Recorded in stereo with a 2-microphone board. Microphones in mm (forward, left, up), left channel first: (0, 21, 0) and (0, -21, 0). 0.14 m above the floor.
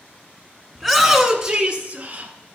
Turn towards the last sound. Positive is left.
turn(degrees=-40)  # may be behind; listen again after turning